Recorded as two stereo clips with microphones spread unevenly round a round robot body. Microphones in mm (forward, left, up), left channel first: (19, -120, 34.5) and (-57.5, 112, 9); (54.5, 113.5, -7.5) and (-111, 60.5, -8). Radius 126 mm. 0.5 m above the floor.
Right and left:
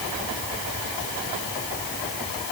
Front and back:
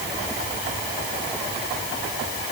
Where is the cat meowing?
No cat meowing in this recording.